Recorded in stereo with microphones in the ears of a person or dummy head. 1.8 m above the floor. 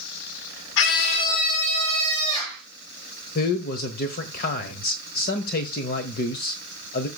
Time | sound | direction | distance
0.8 | a scream | 70° left (ahead or behind) | 0.9 m
3.4 | a man speaking | 50° left (ahead or behind) | 1.1 m